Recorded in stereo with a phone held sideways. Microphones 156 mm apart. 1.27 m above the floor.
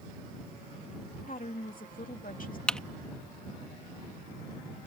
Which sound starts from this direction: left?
A woman speaking, at 1.3 s.